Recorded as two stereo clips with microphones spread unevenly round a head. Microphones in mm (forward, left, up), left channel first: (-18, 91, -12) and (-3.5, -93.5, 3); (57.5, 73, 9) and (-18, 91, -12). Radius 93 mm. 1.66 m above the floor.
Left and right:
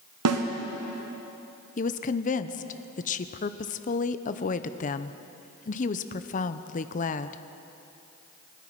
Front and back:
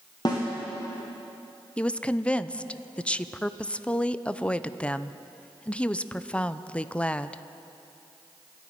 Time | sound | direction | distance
0.2 | a snare drum | 85° right | 1.3 m
1.8 | a woman speaking | 50° left | 0.6 m